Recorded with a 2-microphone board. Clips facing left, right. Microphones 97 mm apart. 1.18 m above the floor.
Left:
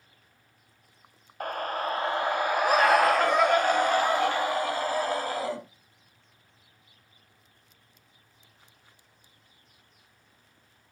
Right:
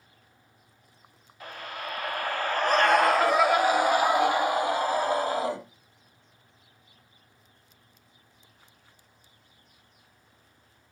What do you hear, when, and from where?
1.4 s a scream: 50° left (ahead or behind), 0.9 m; by 5.6 s 20° right (ahead or behind), 3 m